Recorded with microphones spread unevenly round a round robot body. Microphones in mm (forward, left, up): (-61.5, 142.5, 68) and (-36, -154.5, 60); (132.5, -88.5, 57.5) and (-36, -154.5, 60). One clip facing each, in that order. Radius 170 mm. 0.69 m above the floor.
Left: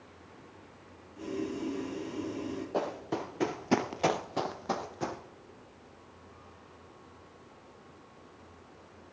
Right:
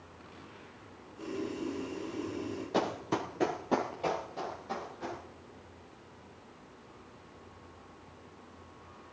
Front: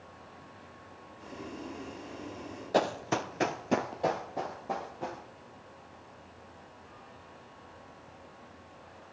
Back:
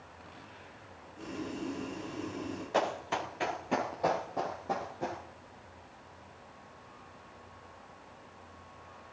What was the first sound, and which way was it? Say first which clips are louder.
Boiling: left 2 dB, back 5 dB; 145° left.